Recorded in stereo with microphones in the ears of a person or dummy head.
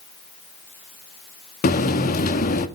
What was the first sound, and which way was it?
A buzzer, 50° left (ahead or behind).